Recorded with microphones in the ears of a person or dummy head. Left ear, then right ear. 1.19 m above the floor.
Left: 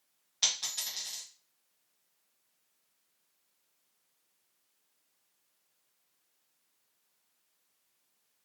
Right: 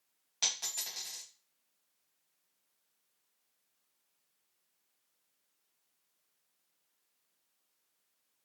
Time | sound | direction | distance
0.4 | a dropped coin | 30° right (ahead or behind) | 1.4 m